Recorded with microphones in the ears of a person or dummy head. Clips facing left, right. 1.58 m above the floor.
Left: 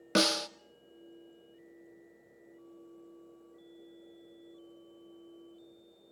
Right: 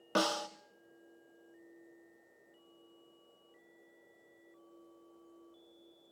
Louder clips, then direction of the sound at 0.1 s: Left 4 dB; 35° left (ahead or behind).